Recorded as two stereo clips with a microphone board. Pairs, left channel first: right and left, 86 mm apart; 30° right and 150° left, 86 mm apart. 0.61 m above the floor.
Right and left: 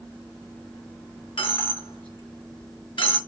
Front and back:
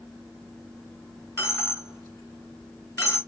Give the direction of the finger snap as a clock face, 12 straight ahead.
No finger snap in this recording.